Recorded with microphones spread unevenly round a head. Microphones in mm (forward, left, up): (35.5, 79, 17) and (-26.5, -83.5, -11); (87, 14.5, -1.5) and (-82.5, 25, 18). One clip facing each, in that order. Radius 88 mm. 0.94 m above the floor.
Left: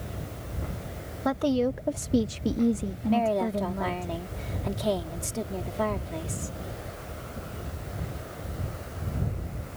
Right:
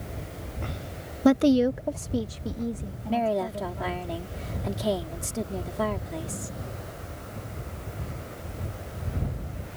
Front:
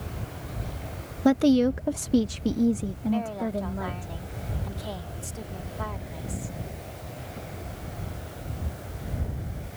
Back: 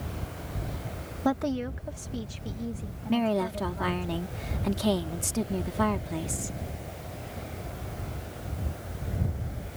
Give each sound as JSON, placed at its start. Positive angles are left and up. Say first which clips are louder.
{"t": 1.2, "sound": "a woman speaking", "louder": "right 6 dB, front 9 dB", "azimuth_deg": -65}
{"t": 3.1, "sound": "a woman speaking", "louder": "left 1 dB, back 3 dB", "azimuth_deg": 165}